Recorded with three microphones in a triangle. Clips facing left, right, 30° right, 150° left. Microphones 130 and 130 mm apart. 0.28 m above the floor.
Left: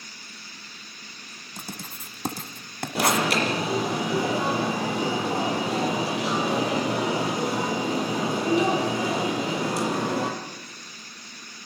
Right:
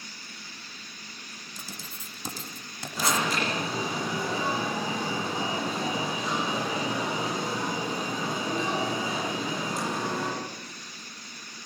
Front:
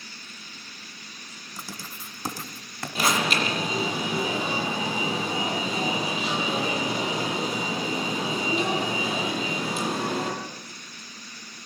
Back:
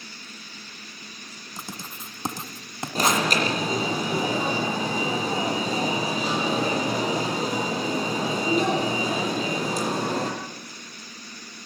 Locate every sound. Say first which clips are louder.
1.6 s writing: left 7 dB, back 2 dB; 85° left, 2.0 m
3.0 s an alarm: left 5 dB, back 2 dB; 100° left, 6.5 m